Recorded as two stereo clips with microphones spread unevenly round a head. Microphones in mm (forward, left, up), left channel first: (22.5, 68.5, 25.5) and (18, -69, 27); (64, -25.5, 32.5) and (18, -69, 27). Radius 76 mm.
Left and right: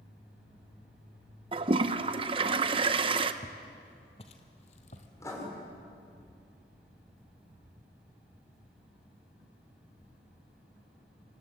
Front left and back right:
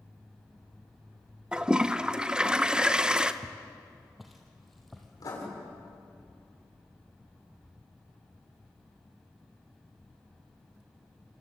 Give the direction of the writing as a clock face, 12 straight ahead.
11 o'clock.